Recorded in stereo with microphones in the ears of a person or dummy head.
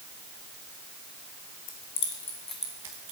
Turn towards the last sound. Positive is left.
turn(degrees=-25)  # may be behind; listen again after turning